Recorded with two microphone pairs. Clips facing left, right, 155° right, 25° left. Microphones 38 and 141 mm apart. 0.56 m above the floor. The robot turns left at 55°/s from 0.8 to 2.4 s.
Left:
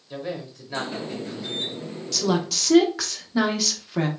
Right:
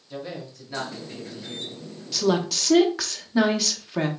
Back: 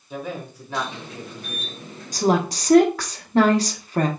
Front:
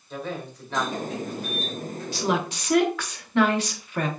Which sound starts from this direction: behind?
A woman speaking, at 2.1 s.